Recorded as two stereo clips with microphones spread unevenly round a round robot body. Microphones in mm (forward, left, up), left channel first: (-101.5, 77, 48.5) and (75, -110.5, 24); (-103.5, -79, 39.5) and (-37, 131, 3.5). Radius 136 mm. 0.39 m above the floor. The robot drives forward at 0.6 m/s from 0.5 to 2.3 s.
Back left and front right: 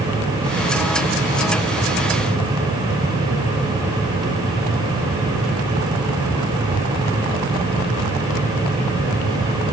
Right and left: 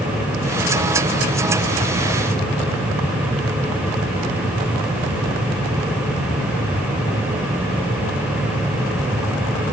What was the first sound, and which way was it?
Only background noise.